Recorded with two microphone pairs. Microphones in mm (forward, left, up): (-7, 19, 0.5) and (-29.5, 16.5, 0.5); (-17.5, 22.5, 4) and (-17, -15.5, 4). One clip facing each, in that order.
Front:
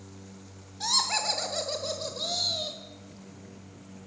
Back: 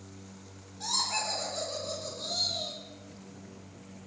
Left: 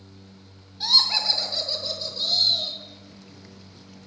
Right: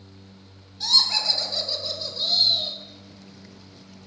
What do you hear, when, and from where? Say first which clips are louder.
0.8 s laughter: front 4 dB, left 1 dB; 25° left, 1.3 m; by 2.8 s 10° right, 2 m